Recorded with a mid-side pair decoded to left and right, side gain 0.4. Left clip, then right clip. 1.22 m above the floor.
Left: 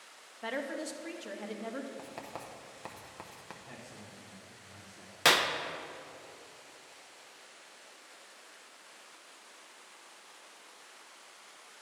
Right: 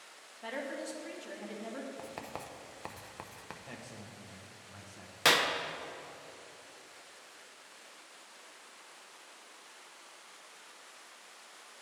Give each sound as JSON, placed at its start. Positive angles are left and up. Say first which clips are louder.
{"t": 0.4, "sound": "a woman speaking", "louder": "left 2 dB", "azimuth_deg": 40, "distance_m": 0.8}
{"t": 2.0, "sound": "writing", "louder": "right 1 dB", "azimuth_deg": -20, "distance_m": 0.6}
{"t": 3.6, "sound": "a man speaking", "louder": "right 1 dB", "azimuth_deg": -50, "distance_m": 1.2}
{"t": 5.2, "sound": "a clap", "louder": "left 1 dB", "azimuth_deg": 15, "distance_m": 0.5}